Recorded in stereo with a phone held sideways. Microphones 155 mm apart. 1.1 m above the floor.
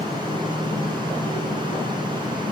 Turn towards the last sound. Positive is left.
turn(degrees=-30)  # may be behind; listen again after turning